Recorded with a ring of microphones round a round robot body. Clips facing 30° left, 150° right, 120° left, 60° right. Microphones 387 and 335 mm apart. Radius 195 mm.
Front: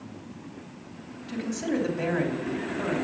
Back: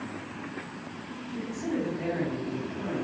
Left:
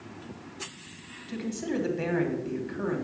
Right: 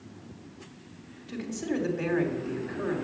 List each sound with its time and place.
1.3 s a man speaking: 40° left, 3 m